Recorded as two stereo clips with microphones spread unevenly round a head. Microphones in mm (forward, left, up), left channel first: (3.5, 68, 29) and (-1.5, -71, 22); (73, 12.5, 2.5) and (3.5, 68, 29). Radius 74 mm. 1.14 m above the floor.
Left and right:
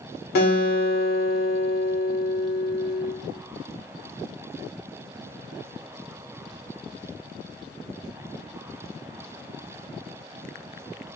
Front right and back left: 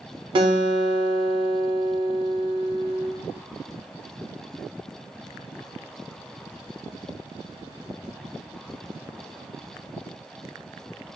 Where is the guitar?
110° left, 0.7 m.